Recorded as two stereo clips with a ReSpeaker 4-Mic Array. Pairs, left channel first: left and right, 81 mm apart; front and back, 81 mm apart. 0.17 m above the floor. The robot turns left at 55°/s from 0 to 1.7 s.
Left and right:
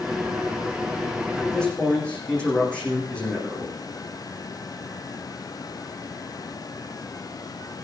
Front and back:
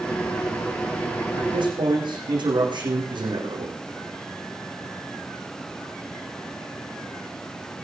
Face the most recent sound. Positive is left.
turn(degrees=165)